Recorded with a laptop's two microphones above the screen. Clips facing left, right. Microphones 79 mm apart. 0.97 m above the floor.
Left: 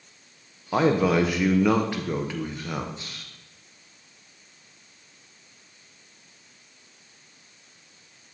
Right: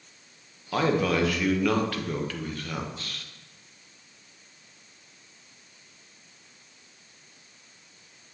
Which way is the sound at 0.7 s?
20° left (ahead or behind).